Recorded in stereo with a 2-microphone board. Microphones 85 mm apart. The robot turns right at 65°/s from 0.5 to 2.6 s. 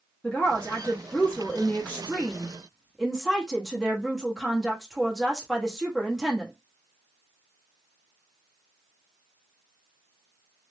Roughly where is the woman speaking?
Centre.